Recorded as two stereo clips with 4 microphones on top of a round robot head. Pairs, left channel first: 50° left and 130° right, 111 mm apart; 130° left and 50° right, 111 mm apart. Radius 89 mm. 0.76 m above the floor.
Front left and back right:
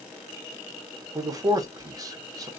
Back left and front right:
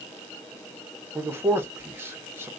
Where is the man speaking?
105° right, 0.9 m.